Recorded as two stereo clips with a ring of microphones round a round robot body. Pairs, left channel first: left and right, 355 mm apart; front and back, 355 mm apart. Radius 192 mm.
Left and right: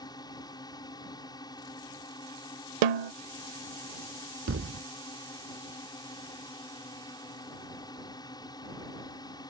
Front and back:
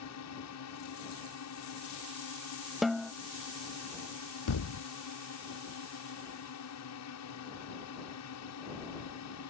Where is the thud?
35° right.